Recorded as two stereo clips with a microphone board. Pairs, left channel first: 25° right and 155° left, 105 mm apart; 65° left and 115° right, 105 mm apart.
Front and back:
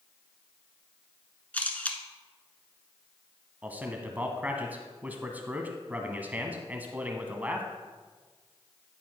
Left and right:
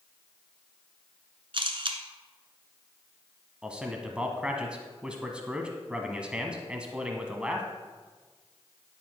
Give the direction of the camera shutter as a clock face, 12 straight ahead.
3 o'clock.